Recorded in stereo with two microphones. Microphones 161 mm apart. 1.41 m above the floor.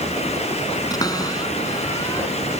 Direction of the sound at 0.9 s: 20° left (ahead or behind).